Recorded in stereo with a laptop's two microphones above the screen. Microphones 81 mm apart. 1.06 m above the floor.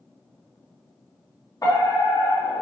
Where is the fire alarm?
50° left (ahead or behind), 4 m.